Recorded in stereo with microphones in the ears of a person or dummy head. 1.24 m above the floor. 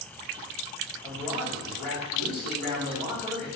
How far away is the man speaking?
About 1.8 m.